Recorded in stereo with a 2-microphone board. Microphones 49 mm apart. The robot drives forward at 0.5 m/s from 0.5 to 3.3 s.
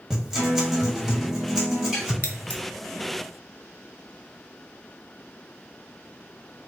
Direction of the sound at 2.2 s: 30° left (ahead or behind).